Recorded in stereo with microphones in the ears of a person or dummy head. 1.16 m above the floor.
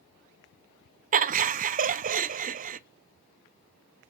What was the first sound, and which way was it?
Laughter, 40° right (ahead or behind).